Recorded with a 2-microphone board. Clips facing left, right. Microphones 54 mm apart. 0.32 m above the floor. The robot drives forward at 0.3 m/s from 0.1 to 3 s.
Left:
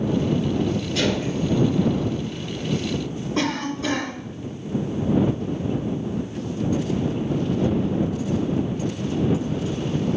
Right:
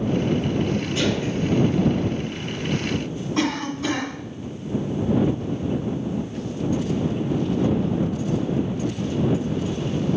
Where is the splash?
80° left, 3 m.